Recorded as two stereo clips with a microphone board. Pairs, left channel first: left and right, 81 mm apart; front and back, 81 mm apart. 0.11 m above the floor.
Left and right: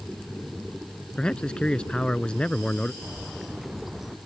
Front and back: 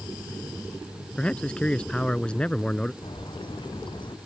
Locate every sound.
1.2 s a man speaking: 45° left
3.0 s a bird: 5° right